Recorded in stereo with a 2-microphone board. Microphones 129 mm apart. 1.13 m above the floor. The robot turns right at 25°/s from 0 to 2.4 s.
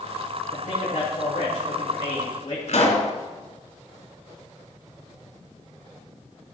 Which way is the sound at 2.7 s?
65° left (ahead or behind).